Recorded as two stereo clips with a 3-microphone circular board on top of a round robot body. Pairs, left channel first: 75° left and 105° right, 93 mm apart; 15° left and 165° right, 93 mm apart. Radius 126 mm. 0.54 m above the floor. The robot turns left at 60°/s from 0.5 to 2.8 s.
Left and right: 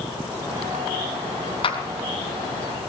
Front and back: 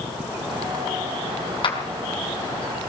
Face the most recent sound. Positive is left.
turn(degrees=-20)